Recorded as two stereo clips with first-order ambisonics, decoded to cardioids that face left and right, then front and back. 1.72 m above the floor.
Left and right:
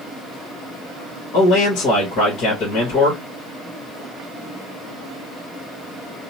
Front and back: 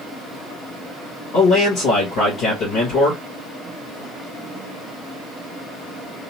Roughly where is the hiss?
I don't hear a hiss.